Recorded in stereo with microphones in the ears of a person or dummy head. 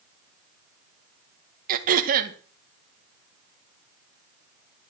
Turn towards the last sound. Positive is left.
turn(degrees=-50)  # may be behind; listen again after turning